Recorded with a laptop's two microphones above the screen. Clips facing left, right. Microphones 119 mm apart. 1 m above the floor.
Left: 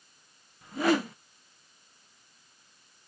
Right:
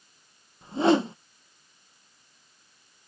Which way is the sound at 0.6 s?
25° right (ahead or behind).